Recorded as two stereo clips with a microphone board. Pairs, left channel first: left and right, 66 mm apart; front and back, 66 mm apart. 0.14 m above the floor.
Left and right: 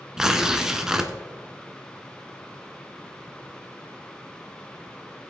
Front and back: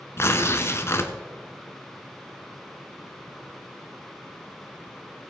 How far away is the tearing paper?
About 1.0 m.